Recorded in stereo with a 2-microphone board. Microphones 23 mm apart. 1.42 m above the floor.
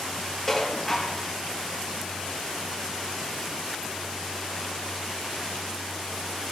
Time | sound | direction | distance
0.5 | dishes clattering | 10° left (ahead or behind) | 1.5 m